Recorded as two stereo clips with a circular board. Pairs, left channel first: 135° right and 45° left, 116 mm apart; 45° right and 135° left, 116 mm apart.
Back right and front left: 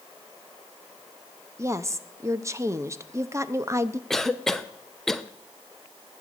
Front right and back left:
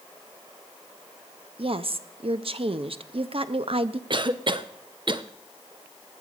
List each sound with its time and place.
1.6 s a woman speaking: 105° left, 0.7 m
4.1 s a cough: 140° left, 0.7 m